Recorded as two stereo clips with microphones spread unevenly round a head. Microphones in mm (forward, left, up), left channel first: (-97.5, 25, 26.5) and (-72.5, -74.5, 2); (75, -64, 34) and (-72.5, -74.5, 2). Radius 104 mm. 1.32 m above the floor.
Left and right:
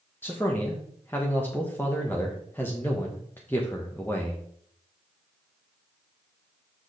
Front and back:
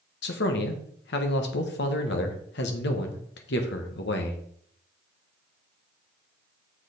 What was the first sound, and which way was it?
A man speaking, 20° left.